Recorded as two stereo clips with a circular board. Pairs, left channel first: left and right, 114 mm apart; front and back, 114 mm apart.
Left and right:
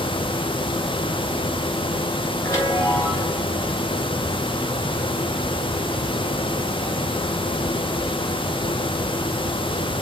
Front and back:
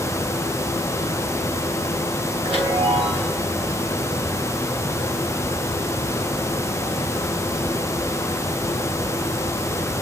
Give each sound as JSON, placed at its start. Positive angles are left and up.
{"t": 2.4, "sound": "a chime", "azimuth_deg": 150, "distance_m": 4.0}